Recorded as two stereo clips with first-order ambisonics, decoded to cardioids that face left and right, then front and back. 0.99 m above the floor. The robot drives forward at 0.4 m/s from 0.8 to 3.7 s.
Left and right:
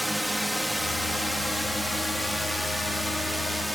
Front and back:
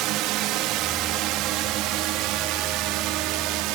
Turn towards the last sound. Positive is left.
turn(degrees=180)